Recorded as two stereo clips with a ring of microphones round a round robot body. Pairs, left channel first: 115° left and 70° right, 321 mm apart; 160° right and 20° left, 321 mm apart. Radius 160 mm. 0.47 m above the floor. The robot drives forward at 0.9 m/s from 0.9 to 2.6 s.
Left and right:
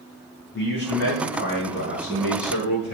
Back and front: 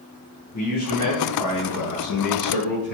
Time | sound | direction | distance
0.5 | a man speaking | 165° left | 4 m